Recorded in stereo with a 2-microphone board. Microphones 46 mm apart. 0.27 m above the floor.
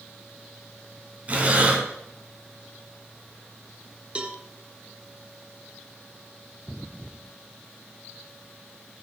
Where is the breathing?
35° right (ahead or behind), 2.5 m.